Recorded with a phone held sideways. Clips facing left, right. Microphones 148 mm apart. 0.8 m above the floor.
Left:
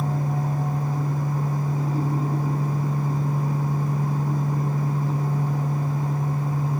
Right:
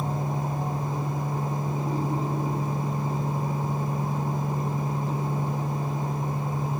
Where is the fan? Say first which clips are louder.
Left 3 dB; 25° right (ahead or behind), 1.3 m.